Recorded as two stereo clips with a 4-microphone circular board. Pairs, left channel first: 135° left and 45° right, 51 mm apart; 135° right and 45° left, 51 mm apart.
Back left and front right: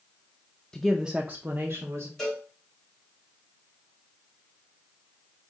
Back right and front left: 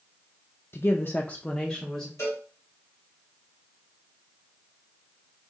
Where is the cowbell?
140° right, 3.5 m.